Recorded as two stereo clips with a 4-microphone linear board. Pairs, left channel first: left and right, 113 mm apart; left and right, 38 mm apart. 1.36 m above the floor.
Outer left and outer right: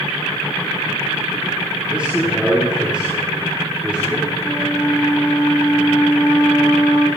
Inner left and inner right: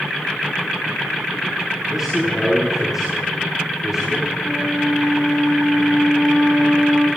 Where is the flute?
20° left (ahead or behind), 5.5 m.